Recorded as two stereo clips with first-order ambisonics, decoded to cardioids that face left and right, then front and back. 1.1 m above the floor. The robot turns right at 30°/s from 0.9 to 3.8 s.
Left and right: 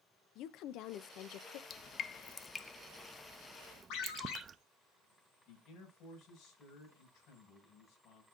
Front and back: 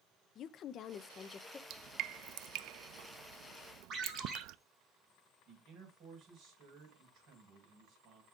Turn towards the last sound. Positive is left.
turn(degrees=140)